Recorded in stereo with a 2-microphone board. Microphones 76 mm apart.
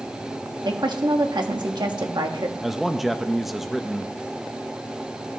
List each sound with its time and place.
0.7 s a woman speaking: 70° right (ahead or behind), 1.4 m
2.6 s a man speaking: 5° right (ahead or behind), 0.6 m